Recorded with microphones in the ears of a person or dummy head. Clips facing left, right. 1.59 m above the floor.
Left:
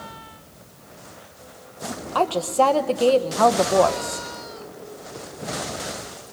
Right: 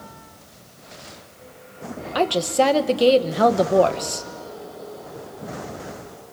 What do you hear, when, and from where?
2.1 s a woman speaking: 15° right (ahead or behind), 1.3 m